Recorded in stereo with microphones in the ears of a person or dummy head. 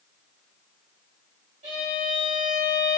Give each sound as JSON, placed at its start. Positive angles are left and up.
{"t": 1.6, "sound": "a violin", "side_deg": -45, "distance_m": 3.5}